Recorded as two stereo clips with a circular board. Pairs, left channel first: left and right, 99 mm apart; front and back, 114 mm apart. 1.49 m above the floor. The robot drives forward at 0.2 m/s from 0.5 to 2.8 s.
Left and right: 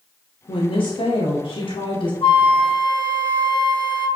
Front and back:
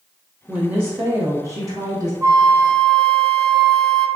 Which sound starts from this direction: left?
A woman speaking, at 0.5 s.